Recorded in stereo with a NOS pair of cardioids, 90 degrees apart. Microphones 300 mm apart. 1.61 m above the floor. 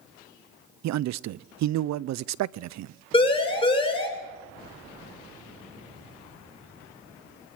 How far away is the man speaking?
About 0.7 m.